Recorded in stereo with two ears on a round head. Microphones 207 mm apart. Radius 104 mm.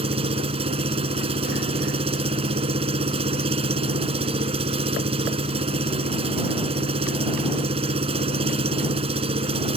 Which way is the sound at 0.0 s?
25° right (ahead or behind).